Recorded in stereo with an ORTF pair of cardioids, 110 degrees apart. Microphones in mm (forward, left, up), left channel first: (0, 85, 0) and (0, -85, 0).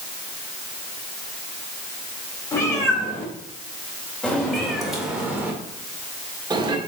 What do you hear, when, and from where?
2.5 s a cat meowing: 20° left, 3.5 m; by 6.8 s 35° right, 1.9 m